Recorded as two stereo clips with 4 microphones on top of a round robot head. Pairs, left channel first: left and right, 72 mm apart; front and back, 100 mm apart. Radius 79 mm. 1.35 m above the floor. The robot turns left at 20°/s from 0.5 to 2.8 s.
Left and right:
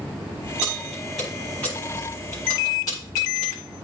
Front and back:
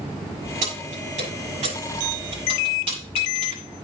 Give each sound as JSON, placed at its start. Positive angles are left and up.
{"t": 0.6, "sound": "keys jangling", "azimuth_deg": -170, "distance_m": 7.0}